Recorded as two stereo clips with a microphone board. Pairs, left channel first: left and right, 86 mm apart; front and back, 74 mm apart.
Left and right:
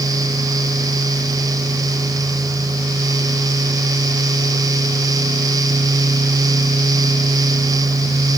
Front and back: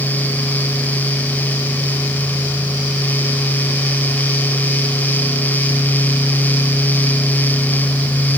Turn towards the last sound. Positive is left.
No sound to turn to.